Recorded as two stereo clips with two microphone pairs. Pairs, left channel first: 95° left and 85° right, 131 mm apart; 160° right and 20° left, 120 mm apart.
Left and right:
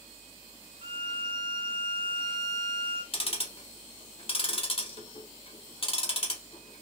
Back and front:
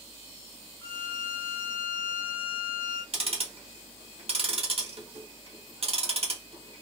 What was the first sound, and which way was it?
A violin, 105° right.